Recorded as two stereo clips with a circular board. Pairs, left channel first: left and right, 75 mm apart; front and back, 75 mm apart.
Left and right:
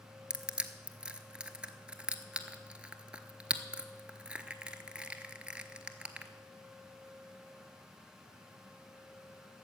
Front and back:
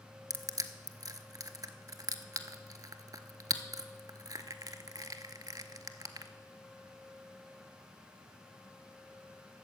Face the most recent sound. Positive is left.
turn(degrees=-165)